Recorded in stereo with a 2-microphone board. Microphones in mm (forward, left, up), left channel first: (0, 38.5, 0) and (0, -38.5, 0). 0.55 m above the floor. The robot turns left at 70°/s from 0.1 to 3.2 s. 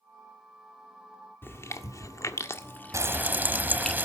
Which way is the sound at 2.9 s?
40° right (ahead or behind).